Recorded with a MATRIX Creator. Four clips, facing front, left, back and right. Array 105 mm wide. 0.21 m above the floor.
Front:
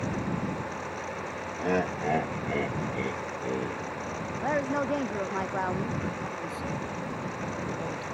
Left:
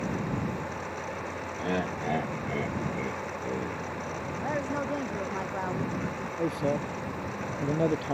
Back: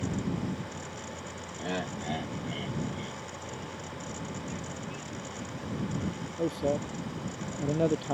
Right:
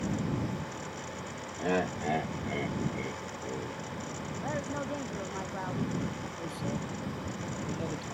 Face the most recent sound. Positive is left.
turn(degrees=135)